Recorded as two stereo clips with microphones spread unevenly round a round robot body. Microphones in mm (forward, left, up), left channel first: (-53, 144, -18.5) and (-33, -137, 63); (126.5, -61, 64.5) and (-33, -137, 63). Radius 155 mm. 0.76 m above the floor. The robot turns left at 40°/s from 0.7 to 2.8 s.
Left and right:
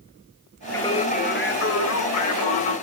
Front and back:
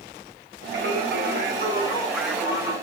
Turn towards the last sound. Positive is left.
turn(degrees=95)